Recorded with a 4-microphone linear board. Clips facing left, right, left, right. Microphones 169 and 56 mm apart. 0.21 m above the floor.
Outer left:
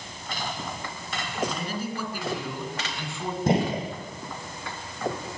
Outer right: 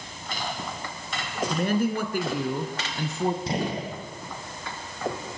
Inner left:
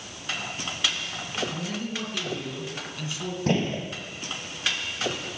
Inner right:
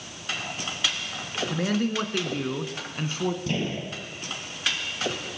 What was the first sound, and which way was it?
A man speaking, 60° right (ahead or behind).